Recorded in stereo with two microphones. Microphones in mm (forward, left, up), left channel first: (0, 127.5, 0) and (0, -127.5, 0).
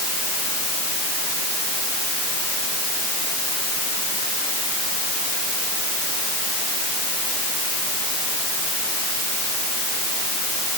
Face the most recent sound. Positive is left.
No sound to turn to.